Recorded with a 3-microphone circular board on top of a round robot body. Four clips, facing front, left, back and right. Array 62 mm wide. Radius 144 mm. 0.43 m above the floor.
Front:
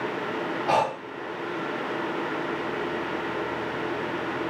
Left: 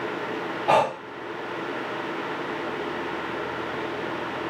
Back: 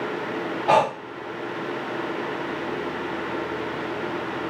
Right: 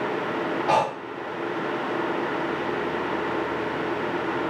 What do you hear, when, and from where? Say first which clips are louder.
0.7 s breathing: left 3 dB, back 5 dB; 150° left, 0.6 m